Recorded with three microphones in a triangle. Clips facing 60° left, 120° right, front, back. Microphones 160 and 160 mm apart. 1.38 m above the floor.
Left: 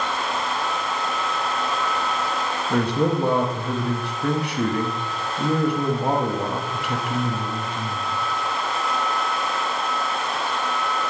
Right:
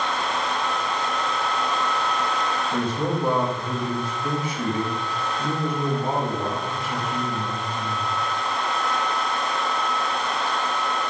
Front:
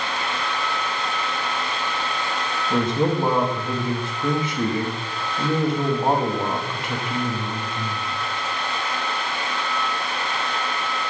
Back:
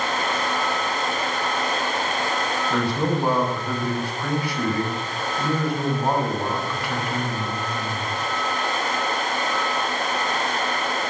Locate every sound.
2.7 s a man speaking: 70° left, 0.9 m